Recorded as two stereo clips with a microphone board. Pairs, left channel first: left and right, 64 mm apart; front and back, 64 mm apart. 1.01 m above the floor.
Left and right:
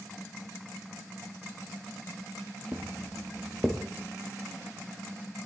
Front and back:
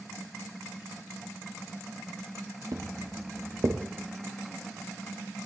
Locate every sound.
2.7 s footsteps: 155° right, 1.9 m; by 3.8 s 175° left, 2 m